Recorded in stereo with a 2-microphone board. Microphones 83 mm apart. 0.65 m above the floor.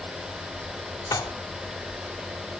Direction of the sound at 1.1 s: 50° left (ahead or behind).